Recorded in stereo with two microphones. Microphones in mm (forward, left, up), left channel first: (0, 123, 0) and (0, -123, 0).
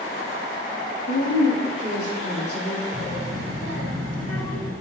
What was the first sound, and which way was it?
A woman speaking, 50° left (ahead or behind).